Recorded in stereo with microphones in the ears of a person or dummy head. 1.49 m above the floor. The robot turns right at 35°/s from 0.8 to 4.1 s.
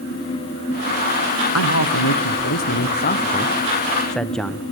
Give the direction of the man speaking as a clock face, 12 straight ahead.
9 o'clock.